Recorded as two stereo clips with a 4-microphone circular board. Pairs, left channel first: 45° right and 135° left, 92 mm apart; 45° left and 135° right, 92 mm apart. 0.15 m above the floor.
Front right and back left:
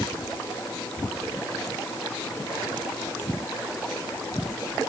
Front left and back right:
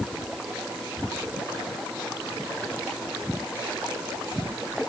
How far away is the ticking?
I don't hear ticking.